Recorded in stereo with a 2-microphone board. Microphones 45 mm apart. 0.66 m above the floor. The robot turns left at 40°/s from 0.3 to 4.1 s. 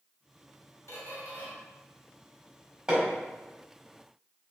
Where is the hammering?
15° right (ahead or behind), 1.4 m; by 3.1 s 25° right (ahead or behind), 1.4 m.